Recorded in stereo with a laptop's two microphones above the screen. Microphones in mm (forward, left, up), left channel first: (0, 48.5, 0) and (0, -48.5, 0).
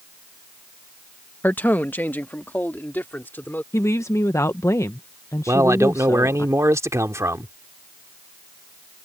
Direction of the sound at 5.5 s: 30° right (ahead or behind).